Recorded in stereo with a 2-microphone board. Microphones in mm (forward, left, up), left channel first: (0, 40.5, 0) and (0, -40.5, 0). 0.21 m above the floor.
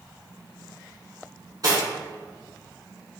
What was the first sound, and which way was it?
Cutlery clinking, 55° right (ahead or behind).